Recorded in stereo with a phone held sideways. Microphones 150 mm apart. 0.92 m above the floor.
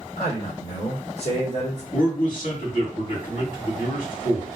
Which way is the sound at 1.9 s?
65° left (ahead or behind).